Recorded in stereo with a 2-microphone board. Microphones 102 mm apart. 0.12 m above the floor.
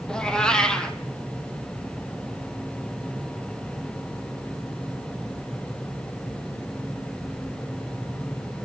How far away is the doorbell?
No doorbell in this recording.